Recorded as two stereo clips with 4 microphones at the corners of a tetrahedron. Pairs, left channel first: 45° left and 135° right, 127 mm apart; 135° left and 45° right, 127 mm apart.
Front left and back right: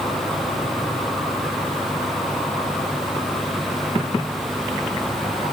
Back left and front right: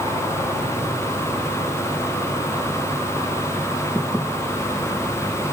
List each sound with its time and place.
Only background noise.